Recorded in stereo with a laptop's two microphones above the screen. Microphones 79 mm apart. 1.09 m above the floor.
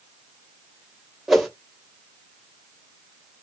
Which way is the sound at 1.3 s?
Centre (ahead or behind).